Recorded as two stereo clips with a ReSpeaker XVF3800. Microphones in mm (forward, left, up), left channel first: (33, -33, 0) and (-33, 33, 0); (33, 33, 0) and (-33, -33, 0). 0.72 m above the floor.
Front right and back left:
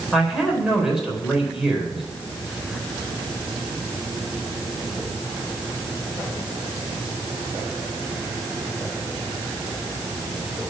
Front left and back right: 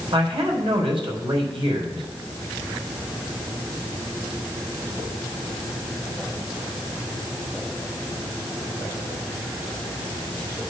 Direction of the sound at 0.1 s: 140° right.